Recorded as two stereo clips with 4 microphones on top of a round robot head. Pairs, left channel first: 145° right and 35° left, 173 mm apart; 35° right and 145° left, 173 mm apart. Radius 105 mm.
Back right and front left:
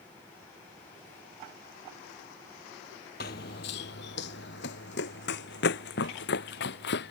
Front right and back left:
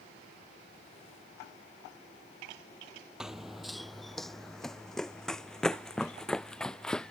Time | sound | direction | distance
3.2 | running footsteps | 125° right | ?